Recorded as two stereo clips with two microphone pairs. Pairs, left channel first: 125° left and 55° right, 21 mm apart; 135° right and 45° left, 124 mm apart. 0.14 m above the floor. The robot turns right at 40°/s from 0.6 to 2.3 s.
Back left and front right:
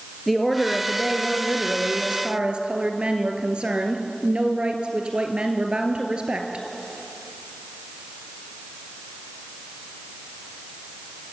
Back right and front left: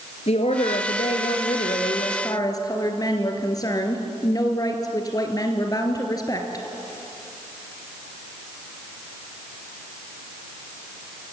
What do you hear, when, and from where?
0.3 s a woman speaking: 150° right, 2 m; by 6.7 s 80° right, 2 m